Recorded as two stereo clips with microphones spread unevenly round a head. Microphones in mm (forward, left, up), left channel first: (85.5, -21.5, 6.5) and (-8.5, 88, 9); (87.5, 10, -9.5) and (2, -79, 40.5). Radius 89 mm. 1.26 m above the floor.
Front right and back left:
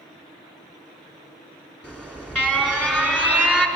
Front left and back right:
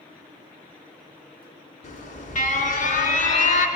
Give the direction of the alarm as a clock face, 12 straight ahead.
11 o'clock.